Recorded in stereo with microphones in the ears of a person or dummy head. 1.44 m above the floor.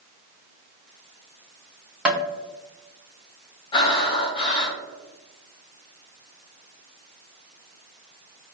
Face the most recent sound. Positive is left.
turn(degrees=25)  # may be behind; listen again after turning